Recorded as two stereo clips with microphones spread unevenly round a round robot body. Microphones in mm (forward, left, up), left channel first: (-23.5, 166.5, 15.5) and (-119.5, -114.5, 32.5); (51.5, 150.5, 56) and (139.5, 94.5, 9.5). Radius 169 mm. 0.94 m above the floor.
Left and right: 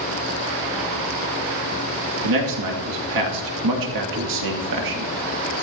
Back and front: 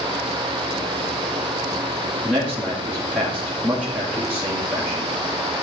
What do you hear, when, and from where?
2.2 s a man speaking: 105° right, 2 m